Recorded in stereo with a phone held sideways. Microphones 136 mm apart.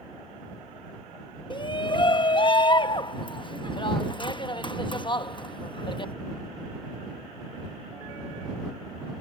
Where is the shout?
35° left (ahead or behind).